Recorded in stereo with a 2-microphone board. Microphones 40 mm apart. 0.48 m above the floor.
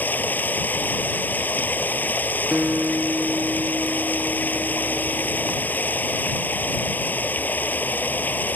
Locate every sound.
0.0 s running water: 50° left (ahead or behind)
2.5 s a guitar: 30° right (ahead or behind)